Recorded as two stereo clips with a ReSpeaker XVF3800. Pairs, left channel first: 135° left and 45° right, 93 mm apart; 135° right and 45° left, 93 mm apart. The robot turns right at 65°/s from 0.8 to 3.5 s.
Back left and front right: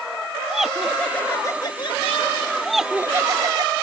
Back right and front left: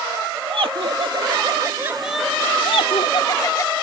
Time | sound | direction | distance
0.5 | laughter | 40° left | ?
2.6 | laughter | 140° right | ?